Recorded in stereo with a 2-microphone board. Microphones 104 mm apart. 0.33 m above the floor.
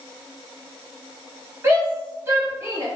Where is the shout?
30° right (ahead or behind), 1.7 m.